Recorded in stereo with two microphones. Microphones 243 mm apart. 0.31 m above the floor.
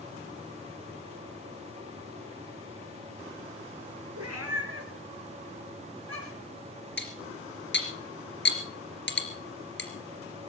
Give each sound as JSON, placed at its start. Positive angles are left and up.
{"t": 4.2, "sound": "a cat meowing", "side_deg": -75, "distance_m": 2.0}
{"t": 7.0, "sound": "cutlery clinking", "side_deg": 50, "distance_m": 3.0}